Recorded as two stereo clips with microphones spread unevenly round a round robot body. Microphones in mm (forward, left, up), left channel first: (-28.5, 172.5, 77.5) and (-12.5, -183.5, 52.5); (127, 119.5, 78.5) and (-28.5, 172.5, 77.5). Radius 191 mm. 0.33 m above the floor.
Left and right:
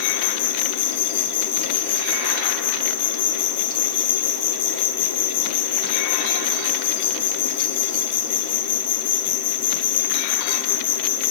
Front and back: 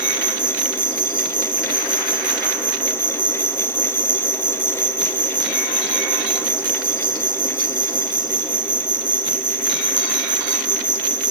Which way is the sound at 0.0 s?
115° left.